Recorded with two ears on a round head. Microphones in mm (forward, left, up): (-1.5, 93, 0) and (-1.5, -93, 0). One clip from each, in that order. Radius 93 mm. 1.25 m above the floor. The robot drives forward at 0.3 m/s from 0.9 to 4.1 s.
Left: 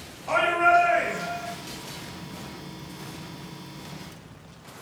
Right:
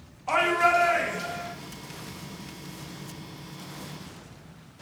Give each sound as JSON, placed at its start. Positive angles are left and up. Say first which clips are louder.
{"t": 0.3, "sound": "a shout", "louder": "left 2 dB", "side_deg": -20, "distance_m": 0.8}